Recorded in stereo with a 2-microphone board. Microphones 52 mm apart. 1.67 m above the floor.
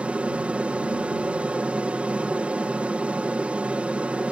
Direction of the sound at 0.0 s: 25° right (ahead or behind).